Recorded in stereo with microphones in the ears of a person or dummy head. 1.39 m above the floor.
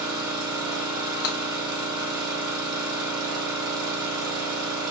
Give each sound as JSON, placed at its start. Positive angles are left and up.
{"t": 0.0, "sound": "an engine running", "side_deg": -20, "distance_m": 0.9}
{"t": 1.2, "sound": "breaking glass", "side_deg": 55, "distance_m": 0.8}